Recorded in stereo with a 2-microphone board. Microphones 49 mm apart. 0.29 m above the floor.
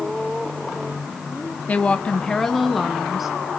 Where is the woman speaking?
30° left (ahead or behind), 1.5 m; by 3.3 s 5° right (ahead or behind), 3.5 m.